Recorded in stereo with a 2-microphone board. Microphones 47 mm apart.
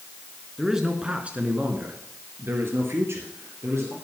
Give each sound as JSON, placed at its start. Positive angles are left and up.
{"t": 0.6, "sound": "a man speaking", "side_deg": -5, "distance_m": 2.0}